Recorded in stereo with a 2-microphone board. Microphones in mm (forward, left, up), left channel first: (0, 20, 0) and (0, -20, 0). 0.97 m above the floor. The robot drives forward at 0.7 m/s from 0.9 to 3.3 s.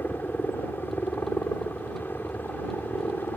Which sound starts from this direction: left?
A helicopter, at 0.0 s.